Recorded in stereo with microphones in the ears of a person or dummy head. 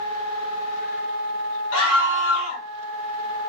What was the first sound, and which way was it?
A scream, 75° left (ahead or behind).